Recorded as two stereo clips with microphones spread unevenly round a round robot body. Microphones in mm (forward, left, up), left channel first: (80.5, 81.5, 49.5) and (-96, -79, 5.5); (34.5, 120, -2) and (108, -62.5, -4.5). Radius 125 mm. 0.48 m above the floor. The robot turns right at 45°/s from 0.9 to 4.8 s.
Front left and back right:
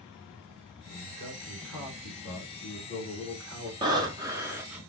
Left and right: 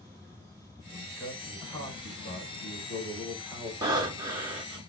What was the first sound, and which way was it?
A man speaking, 10° left.